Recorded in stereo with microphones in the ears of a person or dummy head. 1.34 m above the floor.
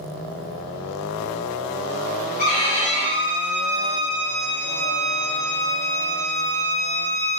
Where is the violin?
40° left (ahead or behind), 1.7 m.